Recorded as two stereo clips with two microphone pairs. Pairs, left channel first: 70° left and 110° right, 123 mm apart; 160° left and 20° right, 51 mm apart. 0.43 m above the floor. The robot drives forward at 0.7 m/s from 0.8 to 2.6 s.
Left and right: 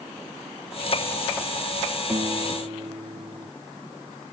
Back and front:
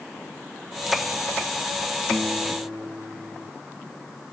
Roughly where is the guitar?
Ahead right.